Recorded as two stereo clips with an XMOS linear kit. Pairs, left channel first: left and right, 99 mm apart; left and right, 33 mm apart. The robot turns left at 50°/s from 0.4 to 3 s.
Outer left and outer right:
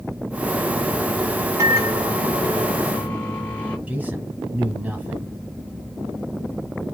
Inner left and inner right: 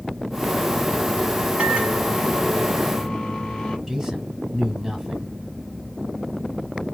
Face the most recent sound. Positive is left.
turn(degrees=-15)  # may be behind; listen again after turning